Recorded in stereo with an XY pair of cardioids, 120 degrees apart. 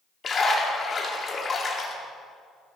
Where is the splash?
35° left, 2 m.